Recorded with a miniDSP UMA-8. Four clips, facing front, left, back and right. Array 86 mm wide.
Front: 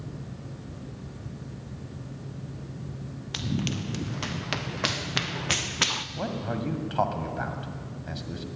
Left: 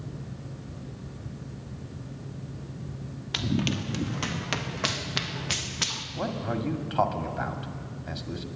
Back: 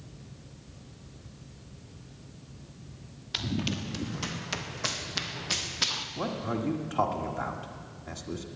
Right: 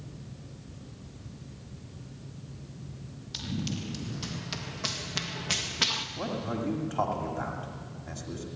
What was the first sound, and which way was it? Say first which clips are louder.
Running footsteps: left 7 dB, front 2 dB; 75° left.